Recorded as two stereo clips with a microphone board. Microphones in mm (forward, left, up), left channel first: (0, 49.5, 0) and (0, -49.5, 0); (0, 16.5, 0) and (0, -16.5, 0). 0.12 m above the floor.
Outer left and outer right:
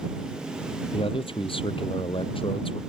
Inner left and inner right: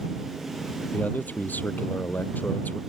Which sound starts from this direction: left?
A man speaking, at 0.9 s.